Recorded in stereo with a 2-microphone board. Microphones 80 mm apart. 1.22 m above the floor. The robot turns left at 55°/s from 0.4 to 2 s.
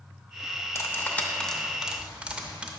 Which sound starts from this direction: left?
Cutlery clinking, at 0.8 s.